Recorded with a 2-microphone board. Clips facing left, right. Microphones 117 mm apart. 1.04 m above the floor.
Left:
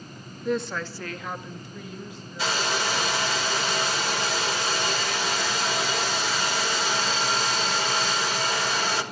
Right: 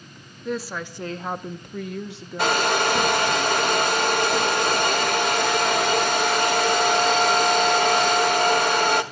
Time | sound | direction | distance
0.5 | a woman speaking | centre (ahead or behind) | 1.6 m
2.4 | a hair dryer | 55° right (ahead or behind) | 1.5 m